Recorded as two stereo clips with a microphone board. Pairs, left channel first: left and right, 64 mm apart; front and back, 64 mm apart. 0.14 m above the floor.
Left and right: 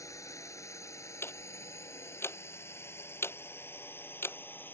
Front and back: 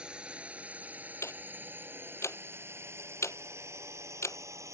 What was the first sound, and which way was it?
A drone, 110° left.